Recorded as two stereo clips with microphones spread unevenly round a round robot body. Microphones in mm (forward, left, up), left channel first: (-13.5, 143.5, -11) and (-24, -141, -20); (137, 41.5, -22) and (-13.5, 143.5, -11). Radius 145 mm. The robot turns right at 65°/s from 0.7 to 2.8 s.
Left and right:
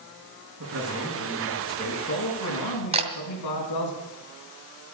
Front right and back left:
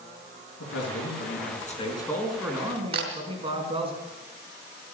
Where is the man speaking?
50° right, 5 m; by 3.9 s 85° left, 5 m.